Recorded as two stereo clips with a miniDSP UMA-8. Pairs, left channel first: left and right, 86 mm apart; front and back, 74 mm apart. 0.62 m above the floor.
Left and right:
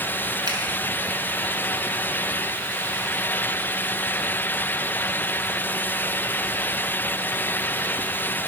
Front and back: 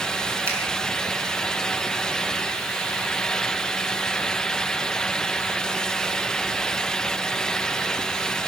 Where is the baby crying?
I don't hear a baby crying.